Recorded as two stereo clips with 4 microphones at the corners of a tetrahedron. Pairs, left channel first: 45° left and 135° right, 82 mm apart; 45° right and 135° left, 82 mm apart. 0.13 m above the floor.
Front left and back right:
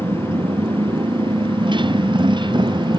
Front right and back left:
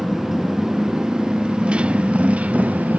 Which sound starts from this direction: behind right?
A motorcycle, at 0.0 s.